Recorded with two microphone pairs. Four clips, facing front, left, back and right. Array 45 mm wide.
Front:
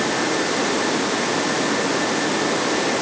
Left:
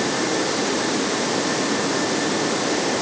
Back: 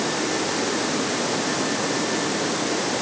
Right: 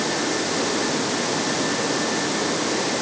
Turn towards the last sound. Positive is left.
No sound to turn to.